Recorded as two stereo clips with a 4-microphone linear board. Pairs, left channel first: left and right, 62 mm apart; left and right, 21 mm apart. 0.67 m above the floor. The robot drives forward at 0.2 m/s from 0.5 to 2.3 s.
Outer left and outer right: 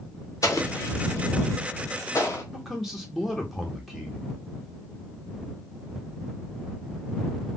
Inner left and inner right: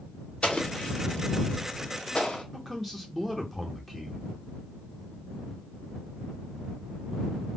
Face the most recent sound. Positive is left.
turn(degrees=-5)  # may be behind; listen again after turning